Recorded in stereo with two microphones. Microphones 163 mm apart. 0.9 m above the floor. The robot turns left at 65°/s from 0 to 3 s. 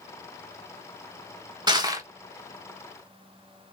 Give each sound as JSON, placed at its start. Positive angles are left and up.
{"t": 1.7, "sound": "crushing", "side_deg": -25, "distance_m": 1.0}